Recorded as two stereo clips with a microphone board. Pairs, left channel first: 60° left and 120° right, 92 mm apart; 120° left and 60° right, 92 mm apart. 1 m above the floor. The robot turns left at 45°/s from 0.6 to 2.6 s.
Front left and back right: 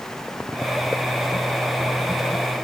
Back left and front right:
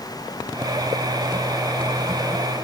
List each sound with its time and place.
Only background noise.